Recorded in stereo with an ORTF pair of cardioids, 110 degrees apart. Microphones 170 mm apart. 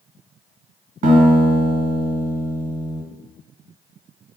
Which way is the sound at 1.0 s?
55° right.